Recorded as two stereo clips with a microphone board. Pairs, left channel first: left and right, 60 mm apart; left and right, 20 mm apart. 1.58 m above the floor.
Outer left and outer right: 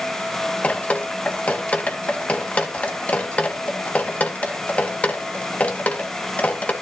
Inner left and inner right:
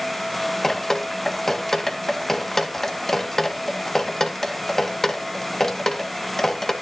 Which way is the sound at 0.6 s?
20° left (ahead or behind).